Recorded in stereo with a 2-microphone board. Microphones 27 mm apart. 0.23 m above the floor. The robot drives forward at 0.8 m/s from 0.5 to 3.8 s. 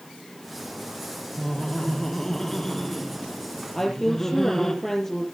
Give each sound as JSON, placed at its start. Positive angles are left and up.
{"t": 1.4, "sound": "laughter", "side_deg": 25, "distance_m": 1.0}
{"t": 3.7, "sound": "a woman speaking", "side_deg": 10, "distance_m": 6.5}